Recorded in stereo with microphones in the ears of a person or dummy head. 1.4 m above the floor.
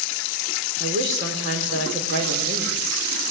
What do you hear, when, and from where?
0.8 s a woman speaking: 55° right (ahead or behind), 4.5 m